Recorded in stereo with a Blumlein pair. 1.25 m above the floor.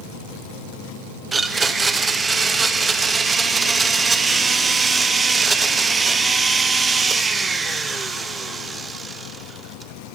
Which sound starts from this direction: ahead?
A blender, at 1.3 s.